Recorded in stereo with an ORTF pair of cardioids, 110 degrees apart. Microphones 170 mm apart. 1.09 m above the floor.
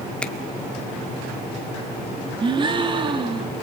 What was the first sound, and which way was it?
A finger snap, 5° left.